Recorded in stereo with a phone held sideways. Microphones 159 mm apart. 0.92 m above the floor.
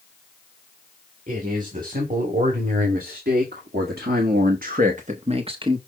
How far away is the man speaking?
About 2.5 m.